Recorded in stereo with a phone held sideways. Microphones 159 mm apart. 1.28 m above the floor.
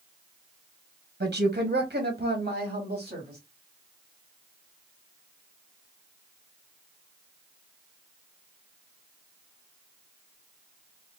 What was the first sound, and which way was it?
A woman speaking, 80° right.